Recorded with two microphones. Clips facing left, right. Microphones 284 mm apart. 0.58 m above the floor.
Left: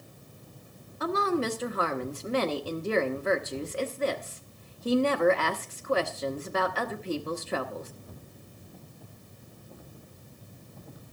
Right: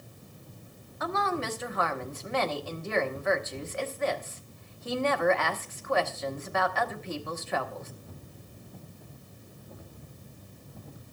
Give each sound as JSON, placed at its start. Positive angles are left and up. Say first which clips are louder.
{"t": 1.0, "sound": "a woman speaking", "louder": "left 5 dB", "side_deg": 35, "distance_m": 1.2}